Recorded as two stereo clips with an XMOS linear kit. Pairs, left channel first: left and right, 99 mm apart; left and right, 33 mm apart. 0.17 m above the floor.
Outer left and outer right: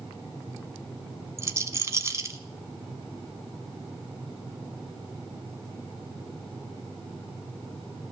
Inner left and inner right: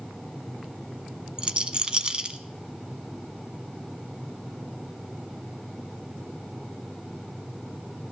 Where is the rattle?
30° right (ahead or behind), 0.8 m.